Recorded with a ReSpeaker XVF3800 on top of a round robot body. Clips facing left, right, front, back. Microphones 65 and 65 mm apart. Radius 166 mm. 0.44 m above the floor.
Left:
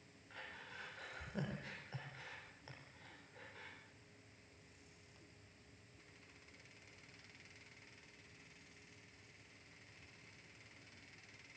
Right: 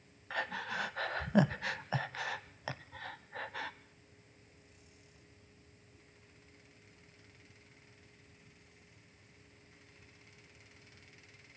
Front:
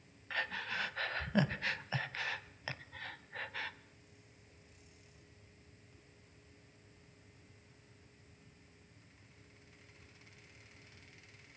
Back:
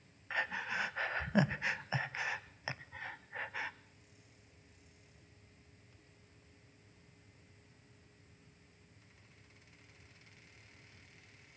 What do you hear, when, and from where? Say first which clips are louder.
0.3 s breathing: right 16 dB, back 2 dB; 105° right, 0.7 m